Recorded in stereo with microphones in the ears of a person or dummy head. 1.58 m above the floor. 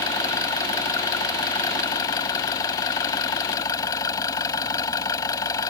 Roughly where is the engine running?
Centre.